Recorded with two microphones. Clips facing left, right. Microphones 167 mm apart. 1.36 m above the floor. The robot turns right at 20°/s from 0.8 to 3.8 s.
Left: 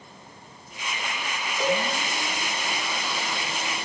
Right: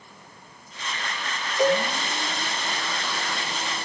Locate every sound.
1.6 s a cowbell: 20° right (ahead or behind), 1.2 m; by 1.8 s 15° right (ahead or behind), 1.2 m